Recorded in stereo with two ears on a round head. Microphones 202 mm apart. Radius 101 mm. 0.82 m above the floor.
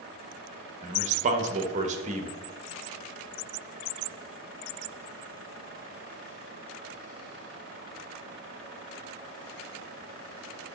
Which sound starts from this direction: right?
A man speaking, at 0.8 s.